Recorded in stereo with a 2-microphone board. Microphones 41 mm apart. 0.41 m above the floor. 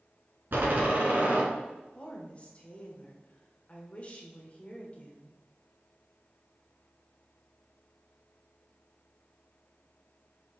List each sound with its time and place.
0.5 s a door slam: 55° right (ahead or behind), 2.5 m
1.9 s a woman speaking: 35° left (ahead or behind), 1.6 m